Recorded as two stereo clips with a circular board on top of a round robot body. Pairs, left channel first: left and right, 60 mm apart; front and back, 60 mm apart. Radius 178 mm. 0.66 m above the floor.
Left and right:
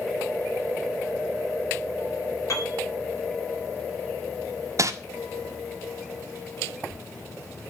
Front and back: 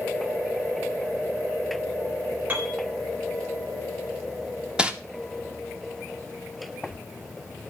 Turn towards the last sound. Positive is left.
turn(degrees=-110)